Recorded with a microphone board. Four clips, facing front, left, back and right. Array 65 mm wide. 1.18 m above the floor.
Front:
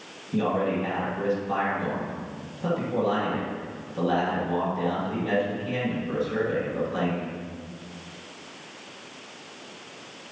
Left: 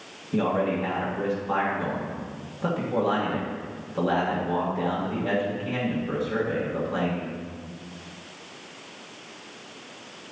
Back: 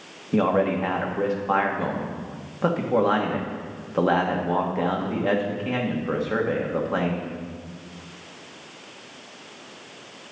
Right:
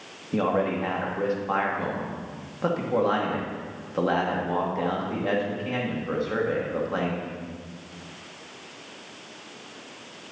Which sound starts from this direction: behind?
A man speaking, at 0.3 s.